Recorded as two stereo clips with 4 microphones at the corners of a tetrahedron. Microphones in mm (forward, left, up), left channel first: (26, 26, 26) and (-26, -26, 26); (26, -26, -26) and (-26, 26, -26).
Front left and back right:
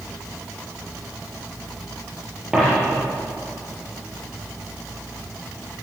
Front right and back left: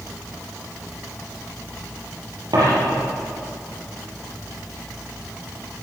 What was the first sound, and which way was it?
A dropped coin, 145° left.